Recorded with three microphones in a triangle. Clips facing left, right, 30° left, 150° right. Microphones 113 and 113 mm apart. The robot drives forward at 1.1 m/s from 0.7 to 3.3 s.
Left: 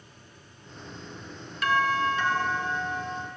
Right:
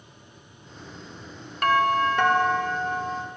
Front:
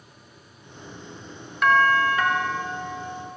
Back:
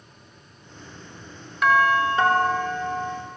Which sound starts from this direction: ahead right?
A doorbell, at 1.6 s.